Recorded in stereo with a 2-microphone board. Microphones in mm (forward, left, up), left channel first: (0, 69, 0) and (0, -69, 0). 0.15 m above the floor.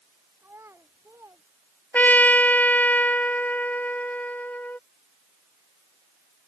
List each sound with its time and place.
0.4 s a child speaking: 15° right (ahead or behind); by 1.4 s 20° right (ahead or behind)
1.9 s a trumpet: 10° left (ahead or behind)